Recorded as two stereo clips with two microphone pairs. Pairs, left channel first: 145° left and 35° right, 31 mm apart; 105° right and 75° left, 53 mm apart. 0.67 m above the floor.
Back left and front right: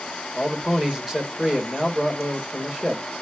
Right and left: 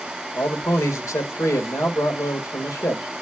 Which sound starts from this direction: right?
A man speaking, at 0.3 s.